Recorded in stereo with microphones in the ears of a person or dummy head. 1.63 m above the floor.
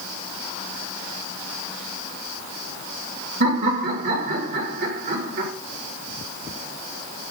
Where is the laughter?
60° right (ahead or behind), 2.5 m.